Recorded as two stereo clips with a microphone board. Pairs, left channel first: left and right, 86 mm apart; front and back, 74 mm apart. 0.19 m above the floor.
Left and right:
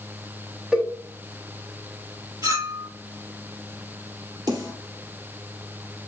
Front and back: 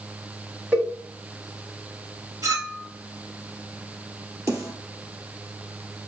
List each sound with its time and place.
0.7 s a cowbell: 155° right, 1.7 m
2.4 s a clink: 135° right, 1.8 m
4.5 s a snare drum: 125° right, 2 m